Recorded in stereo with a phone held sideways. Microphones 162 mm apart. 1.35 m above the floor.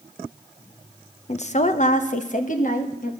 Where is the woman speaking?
45° left (ahead or behind), 0.7 m; by 3.1 s 55° left (ahead or behind), 1.8 m.